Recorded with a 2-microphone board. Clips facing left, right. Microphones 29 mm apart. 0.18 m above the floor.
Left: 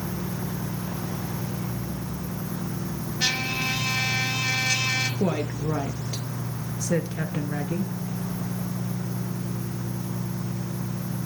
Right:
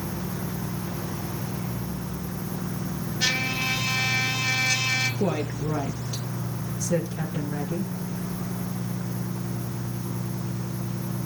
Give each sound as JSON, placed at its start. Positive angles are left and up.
{"t": 3.2, "sound": "a trumpet", "side_deg": 15, "distance_m": 3.0}
{"t": 5.2, "sound": "a woman speaking", "side_deg": 30, "distance_m": 3.5}